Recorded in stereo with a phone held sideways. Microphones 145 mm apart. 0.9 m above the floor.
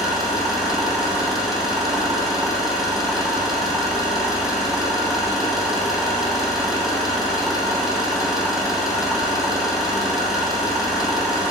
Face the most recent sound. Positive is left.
turn(degrees=0)  # may be behind; listen again after turning